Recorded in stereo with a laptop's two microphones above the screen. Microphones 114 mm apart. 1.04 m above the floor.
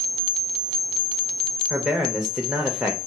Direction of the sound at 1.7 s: 5° right (ahead or behind).